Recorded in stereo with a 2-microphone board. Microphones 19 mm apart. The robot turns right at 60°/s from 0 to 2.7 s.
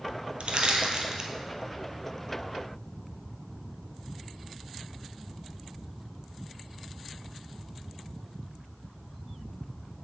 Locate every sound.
0.4 s crushing: 75° right (ahead or behind), 0.9 m; by 1.3 s 30° right (ahead or behind), 0.9 m